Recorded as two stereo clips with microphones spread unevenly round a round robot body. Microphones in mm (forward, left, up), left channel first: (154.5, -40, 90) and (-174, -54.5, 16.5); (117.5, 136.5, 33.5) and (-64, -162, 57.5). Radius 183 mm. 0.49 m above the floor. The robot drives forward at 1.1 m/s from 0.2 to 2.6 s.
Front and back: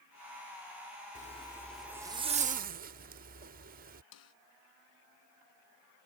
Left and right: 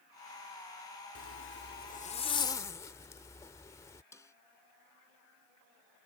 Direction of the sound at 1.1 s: 75° left.